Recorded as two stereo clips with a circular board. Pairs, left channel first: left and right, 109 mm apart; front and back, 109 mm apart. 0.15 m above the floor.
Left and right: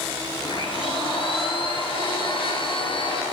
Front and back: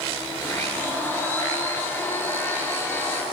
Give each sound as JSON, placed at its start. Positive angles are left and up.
{"t": 0.4, "sound": "a blender", "azimuth_deg": 70, "distance_m": 1.7}